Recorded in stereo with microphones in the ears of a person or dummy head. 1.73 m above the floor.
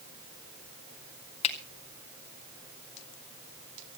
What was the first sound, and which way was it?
A finger snap, 35° left (ahead or behind).